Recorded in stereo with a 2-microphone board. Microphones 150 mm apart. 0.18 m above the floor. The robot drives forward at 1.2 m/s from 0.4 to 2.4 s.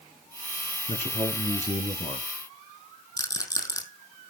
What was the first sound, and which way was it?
A man speaking, 45° left (ahead or behind).